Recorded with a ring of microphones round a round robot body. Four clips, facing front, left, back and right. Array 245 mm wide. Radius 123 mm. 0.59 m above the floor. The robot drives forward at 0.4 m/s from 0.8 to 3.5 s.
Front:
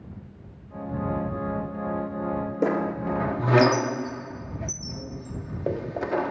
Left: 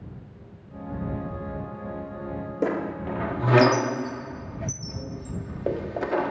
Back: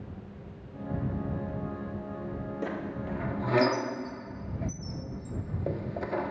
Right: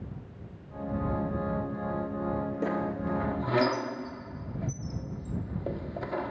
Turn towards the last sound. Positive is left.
turn(degrees=55)